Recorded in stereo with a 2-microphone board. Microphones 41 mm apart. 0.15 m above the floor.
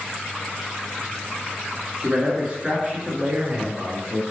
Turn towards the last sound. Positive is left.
turn(degrees=-50)  # may be behind; listen again after turning